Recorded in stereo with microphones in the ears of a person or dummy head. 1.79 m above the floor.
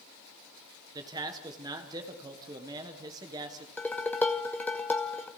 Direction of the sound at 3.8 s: 10° left (ahead or behind).